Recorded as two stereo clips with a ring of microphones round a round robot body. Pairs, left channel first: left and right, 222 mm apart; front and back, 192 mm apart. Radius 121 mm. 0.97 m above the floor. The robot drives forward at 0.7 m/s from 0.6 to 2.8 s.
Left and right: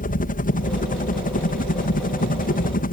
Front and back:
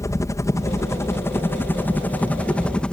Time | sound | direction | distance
0.0 | a helicopter | 65° left | ?